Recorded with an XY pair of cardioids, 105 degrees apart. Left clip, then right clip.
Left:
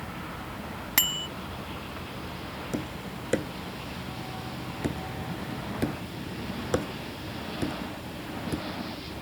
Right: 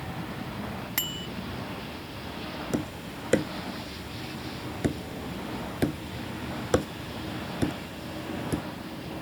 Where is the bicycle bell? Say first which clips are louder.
Left 7 dB; 40° left.